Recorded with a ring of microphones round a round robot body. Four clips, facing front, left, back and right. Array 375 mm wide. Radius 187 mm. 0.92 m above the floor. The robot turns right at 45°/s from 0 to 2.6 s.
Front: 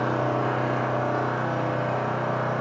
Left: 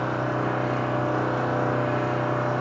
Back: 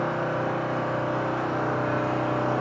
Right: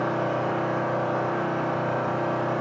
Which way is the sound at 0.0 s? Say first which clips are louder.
Right 1 dB, front 2 dB; 25° left.